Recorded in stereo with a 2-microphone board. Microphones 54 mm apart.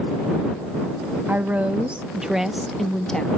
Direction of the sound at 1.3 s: 35° right (ahead or behind).